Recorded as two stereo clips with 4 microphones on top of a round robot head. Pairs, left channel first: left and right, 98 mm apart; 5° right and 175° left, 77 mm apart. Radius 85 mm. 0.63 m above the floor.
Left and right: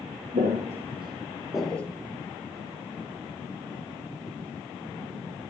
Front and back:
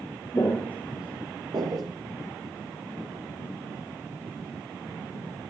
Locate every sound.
0.3 s footsteps: 70° right, 1.3 m; by 1.9 s 165° left, 0.9 m